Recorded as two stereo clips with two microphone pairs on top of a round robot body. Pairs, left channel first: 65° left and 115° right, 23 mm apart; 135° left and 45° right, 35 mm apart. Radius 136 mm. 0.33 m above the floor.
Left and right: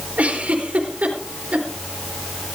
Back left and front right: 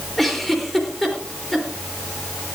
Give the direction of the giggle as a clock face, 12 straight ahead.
5 o'clock.